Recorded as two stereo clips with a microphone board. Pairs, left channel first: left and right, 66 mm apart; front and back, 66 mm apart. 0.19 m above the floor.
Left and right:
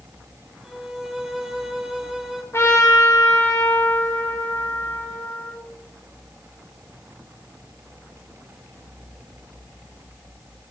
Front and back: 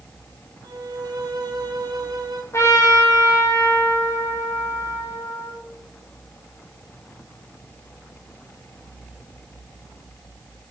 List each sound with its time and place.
0.6 s a violin: 175° right, 2.0 m
2.5 s a trumpet: 40° left, 7.5 m